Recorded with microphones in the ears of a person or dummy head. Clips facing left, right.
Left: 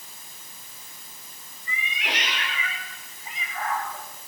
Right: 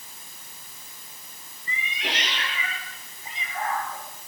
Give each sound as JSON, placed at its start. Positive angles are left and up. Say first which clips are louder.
{"t": 1.7, "sound": "a cat meowing", "louder": "even", "side_deg": -35, "distance_m": 7.0}